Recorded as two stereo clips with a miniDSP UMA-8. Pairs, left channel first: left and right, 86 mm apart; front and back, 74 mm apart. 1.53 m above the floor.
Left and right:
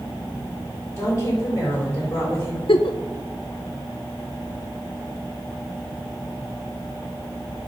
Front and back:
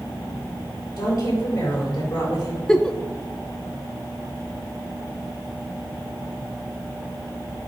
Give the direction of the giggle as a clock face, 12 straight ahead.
9 o'clock.